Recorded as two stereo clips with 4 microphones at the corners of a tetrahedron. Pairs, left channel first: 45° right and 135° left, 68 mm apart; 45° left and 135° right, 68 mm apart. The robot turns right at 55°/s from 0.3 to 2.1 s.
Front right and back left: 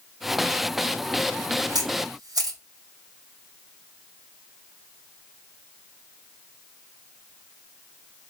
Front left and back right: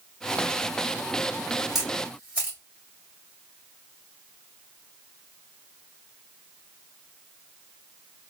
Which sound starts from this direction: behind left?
A camera shutter, at 1.8 s.